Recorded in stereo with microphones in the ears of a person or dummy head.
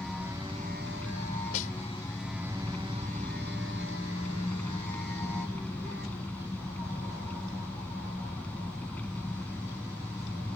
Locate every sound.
0.0 s an engine running: 10° left (ahead or behind)
1.5 s a snare drum: 40° left (ahead or behind)